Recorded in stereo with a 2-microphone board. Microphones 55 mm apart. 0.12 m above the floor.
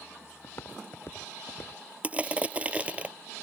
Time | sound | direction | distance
0.4 | footsteps | 50° left (ahead or behind) | ?
2.0 | crushing | 25° right (ahead or behind) | ?